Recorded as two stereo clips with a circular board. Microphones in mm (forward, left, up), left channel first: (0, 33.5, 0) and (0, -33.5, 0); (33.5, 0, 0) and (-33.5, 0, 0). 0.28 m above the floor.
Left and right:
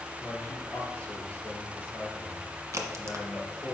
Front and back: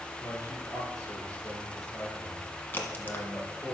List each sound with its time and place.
0.2 s a man speaking: 40° left, 4 m
2.7 s a crack: 55° right, 1.4 m